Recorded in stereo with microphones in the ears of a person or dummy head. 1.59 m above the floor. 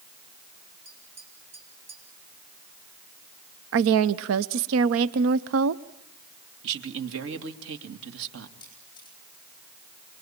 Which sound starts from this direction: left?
A camera shutter, at 8.6 s.